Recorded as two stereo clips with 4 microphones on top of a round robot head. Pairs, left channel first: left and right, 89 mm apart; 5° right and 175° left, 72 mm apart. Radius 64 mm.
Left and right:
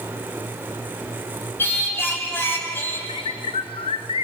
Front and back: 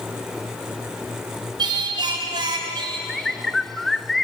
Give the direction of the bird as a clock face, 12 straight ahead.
9 o'clock.